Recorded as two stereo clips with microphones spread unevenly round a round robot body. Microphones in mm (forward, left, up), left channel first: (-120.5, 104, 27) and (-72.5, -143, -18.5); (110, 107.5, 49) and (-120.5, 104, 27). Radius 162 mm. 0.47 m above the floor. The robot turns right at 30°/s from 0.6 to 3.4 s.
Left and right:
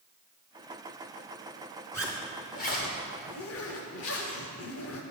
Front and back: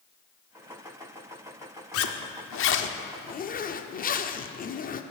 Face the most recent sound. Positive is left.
turn(degrees=60)